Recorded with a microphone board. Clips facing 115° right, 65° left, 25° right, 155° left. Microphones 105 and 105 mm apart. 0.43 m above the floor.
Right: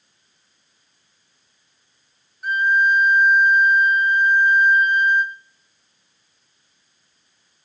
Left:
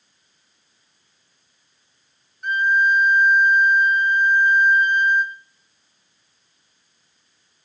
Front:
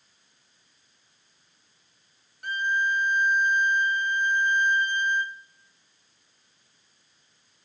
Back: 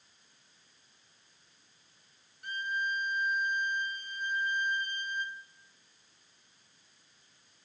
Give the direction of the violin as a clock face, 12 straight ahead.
1 o'clock.